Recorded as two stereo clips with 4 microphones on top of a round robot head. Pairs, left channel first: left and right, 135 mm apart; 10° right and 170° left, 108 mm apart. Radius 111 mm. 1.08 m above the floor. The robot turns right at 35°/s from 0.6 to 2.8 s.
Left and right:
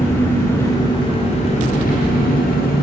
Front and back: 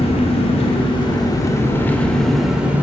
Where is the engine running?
15° left, 2 m; by 2.8 s 90° left, 2 m.